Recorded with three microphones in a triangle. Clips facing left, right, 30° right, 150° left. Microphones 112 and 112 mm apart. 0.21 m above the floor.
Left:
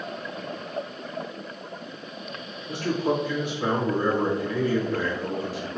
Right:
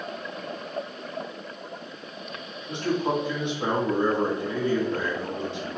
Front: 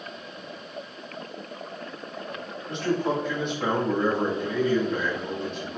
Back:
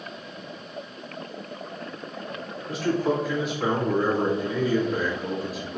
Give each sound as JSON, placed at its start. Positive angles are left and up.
{"t": 2.7, "sound": "a man speaking", "azimuth_deg": -130, "distance_m": 1.5}